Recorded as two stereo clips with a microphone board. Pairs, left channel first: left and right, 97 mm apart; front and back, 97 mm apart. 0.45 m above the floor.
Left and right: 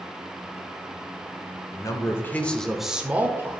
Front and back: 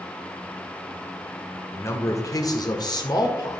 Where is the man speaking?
55° left, 1.1 m; by 3.6 s 35° right, 1.3 m.